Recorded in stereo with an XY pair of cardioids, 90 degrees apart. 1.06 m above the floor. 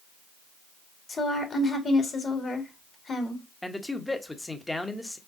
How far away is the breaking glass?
No breaking glass in this recording.